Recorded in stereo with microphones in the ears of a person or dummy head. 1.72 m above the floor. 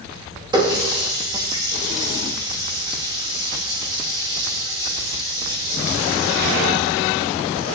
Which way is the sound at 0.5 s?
20° right (ahead or behind).